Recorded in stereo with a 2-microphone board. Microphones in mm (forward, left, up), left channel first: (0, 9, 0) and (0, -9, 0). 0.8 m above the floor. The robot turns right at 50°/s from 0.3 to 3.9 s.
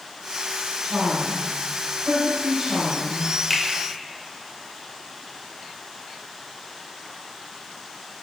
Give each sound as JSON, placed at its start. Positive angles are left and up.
{"t": 0.8, "sound": "a woman speaking", "azimuth_deg": -115, "distance_m": 3.0}
{"t": 3.5, "sound": "a finger snap", "side_deg": 5, "distance_m": 1.7}